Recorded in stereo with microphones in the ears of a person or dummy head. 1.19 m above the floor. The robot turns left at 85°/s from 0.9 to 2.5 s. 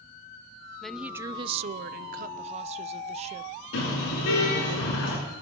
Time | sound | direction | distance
0.8 | a woman speaking | 5° left | 0.7 m
3.7 | a car horn | 70° left (ahead or behind) | 9 m